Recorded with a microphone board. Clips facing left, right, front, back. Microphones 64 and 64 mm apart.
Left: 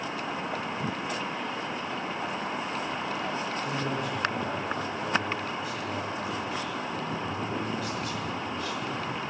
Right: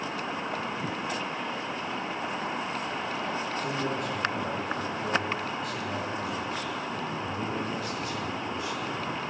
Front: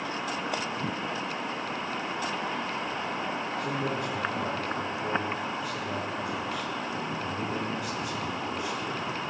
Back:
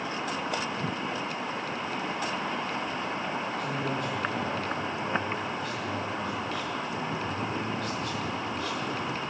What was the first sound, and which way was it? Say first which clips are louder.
A man speaking: even, even; 85° right.